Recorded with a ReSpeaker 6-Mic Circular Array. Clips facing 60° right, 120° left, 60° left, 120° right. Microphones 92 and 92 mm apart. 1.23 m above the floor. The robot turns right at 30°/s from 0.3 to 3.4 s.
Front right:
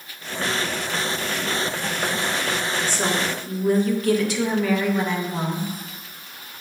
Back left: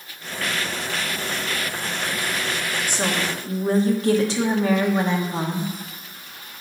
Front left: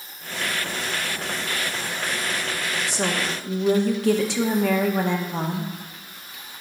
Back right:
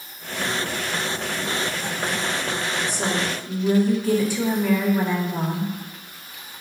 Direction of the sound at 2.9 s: 45° left.